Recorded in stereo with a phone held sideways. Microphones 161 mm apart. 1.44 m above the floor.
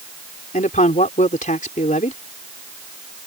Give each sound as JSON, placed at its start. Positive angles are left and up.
{"t": 0.5, "sound": "a man speaking", "side_deg": 55}